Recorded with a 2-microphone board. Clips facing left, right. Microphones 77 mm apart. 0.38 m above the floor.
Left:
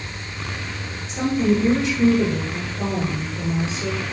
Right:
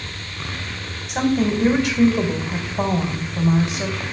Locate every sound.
1.1 s a woman speaking: 65° right (ahead or behind), 2.5 m